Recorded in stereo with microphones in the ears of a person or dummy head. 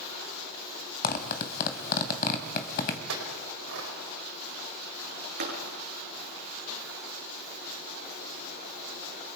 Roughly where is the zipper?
Left.